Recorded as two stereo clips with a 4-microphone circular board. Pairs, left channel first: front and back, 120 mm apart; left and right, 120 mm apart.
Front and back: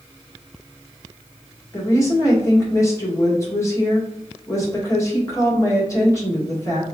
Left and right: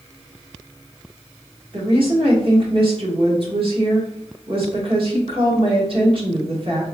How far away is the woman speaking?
About 1.5 m.